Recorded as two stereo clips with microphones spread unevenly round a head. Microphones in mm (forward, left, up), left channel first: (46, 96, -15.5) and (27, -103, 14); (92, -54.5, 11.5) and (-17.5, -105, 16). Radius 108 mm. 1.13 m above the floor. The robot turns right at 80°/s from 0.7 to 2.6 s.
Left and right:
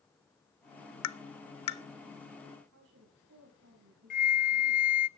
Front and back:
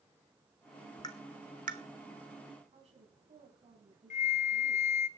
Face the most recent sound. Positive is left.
turn(degrees=40)